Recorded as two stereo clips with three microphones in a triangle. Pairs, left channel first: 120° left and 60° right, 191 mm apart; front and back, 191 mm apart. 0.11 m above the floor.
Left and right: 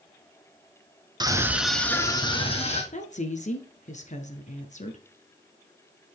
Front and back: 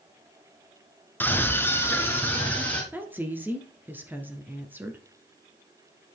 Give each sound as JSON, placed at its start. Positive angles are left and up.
{"t": 1.2, "sound": "a scream", "azimuth_deg": -65, "distance_m": 1.2}
{"t": 2.9, "sound": "a woman speaking", "azimuth_deg": 105, "distance_m": 1.4}